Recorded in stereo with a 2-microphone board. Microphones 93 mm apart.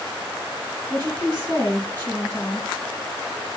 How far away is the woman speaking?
About 1.5 m.